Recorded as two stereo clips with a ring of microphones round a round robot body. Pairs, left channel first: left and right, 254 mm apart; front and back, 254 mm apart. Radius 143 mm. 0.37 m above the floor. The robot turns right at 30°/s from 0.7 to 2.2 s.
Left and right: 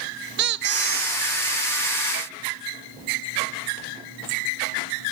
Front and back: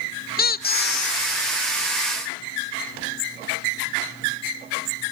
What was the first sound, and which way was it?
A squeak, 50° right.